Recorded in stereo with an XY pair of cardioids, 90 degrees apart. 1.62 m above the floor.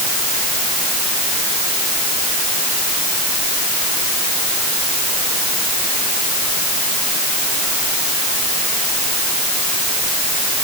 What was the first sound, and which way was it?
Only background noise.